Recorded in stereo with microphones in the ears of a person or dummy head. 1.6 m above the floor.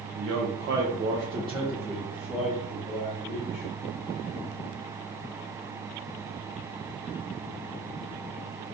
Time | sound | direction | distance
0.1 | a man speaking | 65° right (ahead or behind) | 0.8 m